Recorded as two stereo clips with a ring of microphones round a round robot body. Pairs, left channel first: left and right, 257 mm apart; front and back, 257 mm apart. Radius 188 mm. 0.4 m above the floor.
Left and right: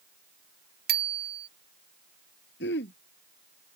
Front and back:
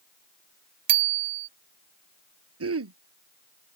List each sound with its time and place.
0.9 s a bicycle bell: 150° right
2.6 s throat clearing: 150° left